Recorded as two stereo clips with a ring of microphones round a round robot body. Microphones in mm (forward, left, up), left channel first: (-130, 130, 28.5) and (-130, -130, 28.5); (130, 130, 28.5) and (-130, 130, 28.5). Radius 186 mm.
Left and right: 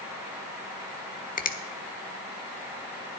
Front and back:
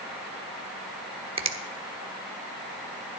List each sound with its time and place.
1.4 s a finger snap: 125° left, 1.2 m